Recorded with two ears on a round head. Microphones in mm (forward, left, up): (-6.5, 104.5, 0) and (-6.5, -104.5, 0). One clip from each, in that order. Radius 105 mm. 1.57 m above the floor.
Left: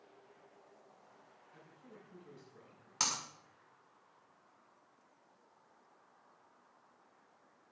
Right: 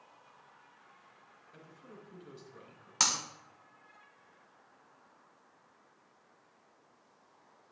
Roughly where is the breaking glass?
Centre.